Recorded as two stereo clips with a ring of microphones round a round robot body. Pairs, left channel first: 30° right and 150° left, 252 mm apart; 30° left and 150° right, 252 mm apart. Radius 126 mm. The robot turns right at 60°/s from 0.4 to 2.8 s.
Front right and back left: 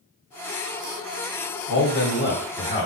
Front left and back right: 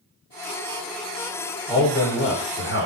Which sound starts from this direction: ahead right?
A man speaking, at 1.7 s.